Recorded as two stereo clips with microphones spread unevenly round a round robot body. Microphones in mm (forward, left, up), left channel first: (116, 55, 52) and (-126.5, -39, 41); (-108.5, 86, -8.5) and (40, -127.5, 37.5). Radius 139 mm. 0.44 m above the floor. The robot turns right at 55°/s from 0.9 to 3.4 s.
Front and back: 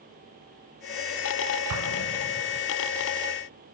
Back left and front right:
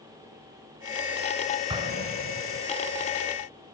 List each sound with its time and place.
1.7 s an explosion: 130° right, 0.7 m; by 2.6 s 80° right, 0.7 m